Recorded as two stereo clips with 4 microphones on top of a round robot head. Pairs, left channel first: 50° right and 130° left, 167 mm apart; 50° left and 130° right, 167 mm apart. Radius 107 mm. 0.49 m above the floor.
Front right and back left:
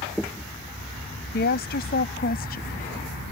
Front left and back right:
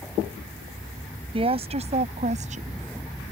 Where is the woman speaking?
75° right; by 3.3 s 90° right.